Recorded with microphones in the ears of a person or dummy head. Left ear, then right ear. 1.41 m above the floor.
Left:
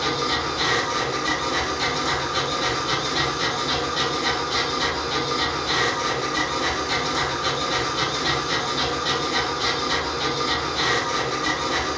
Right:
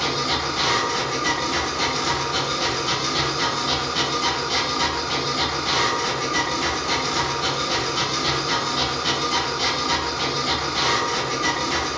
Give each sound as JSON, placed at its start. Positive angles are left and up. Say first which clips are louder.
{"t": 0.0, "sound": "a machine running", "louder": "even", "side_deg": -70, "distance_m": 1.2}